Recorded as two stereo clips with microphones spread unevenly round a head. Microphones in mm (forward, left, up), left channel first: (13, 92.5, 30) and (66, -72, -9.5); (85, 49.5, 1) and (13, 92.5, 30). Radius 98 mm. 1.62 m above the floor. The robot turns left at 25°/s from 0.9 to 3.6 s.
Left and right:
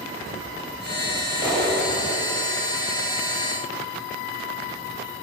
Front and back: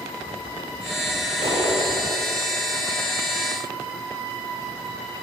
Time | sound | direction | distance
1.4 | a clap | 155° right | 7 m